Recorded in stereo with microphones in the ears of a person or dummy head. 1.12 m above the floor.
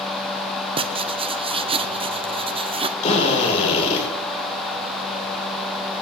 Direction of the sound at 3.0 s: 40° left (ahead or behind).